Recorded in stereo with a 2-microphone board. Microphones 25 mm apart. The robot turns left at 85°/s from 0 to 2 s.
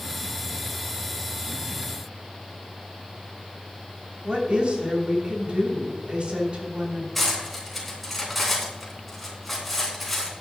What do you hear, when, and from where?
4.2 s a woman speaking: 50° right (ahead or behind), 3 m
7.2 s cutlery clinking: 10° left (ahead or behind), 3.5 m